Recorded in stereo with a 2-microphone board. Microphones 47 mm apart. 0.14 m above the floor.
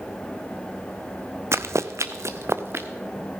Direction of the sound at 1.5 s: 70° right (ahead or behind).